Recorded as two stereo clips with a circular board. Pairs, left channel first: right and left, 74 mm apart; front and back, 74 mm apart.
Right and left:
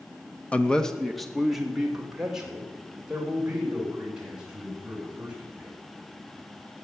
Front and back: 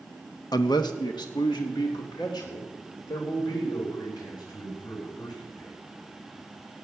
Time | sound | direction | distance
0.5 | a man speaking | 20° right | 1.0 m